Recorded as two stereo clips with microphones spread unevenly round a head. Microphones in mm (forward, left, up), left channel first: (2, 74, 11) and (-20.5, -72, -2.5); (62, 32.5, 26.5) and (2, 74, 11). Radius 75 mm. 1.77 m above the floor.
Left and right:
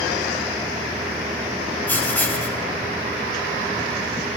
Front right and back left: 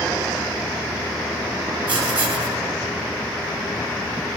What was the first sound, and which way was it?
Writing, 155° left.